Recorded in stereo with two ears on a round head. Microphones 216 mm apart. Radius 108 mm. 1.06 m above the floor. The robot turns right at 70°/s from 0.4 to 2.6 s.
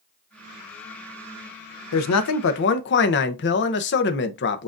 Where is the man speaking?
85° left, 0.7 m; by 4.7 s 130° left, 0.7 m.